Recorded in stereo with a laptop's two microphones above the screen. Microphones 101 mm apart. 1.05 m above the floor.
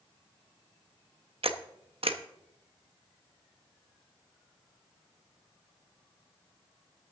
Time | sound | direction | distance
1.4 | a camera shutter | 70° right (ahead or behind) | 0.8 m